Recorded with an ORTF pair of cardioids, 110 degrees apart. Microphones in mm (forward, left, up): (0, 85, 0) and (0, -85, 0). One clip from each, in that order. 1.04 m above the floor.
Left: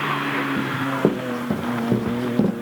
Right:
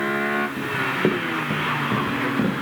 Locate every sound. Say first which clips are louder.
0.6 s running footsteps: even; 35° left, 3.5 m